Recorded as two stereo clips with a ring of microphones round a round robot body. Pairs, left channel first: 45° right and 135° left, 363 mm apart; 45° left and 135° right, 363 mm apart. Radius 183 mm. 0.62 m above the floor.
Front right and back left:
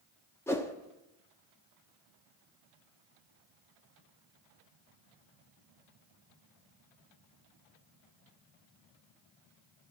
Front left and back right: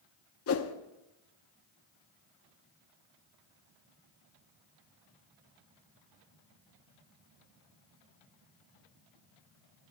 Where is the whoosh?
35° left, 0.9 m.